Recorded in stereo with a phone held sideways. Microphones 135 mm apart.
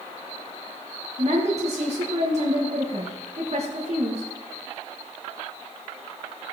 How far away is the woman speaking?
About 1.5 m.